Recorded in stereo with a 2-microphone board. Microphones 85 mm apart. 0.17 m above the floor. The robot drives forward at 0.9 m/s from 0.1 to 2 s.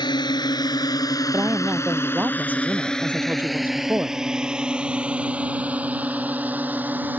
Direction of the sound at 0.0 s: 60° left (ahead or behind).